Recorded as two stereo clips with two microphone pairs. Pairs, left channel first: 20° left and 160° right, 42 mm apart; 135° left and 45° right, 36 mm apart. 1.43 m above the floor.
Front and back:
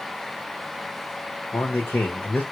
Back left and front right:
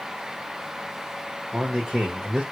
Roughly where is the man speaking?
Ahead left.